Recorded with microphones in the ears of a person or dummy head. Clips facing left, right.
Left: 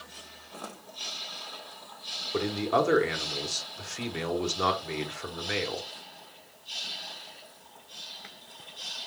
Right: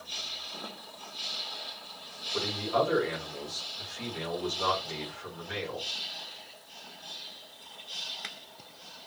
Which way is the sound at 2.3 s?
70° left (ahead or behind).